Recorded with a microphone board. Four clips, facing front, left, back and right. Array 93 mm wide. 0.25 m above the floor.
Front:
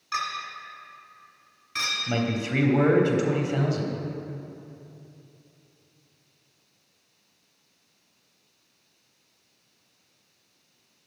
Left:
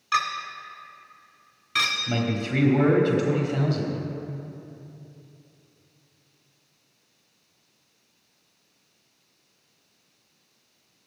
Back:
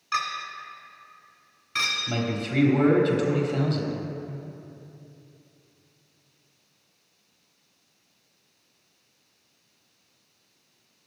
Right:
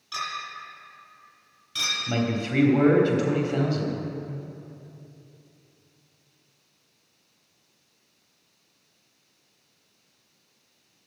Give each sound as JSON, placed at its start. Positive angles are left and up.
{"t": 0.1, "sound": "a clink", "azimuth_deg": 95, "distance_m": 1.6}
{"t": 2.1, "sound": "a man speaking", "azimuth_deg": -10, "distance_m": 1.0}